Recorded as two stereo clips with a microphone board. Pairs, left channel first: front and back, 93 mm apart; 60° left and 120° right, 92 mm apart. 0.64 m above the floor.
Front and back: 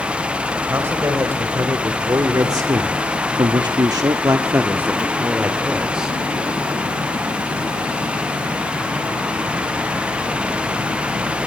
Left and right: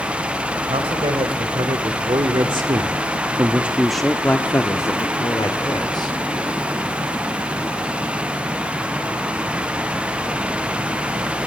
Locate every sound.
0.7 s a man speaking: 120° right, 2.5 m; by 6.2 s 95° left, 2 m